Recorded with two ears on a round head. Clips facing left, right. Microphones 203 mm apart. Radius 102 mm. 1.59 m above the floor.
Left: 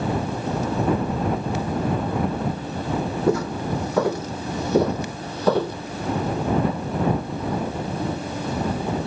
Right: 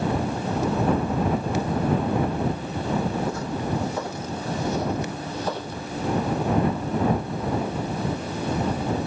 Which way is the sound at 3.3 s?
55° left (ahead or behind).